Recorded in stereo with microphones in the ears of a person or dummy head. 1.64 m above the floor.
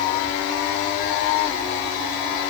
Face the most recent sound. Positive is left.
No sound to turn to.